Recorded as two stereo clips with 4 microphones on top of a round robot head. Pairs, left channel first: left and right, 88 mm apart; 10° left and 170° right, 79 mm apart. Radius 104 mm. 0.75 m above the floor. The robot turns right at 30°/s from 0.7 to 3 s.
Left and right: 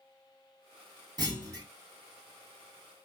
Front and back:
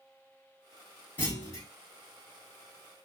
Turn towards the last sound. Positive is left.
turn(degrees=-5)